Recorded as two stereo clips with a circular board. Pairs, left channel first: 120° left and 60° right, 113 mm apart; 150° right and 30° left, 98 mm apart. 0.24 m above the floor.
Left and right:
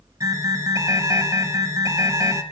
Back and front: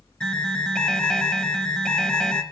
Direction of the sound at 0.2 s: 75° right.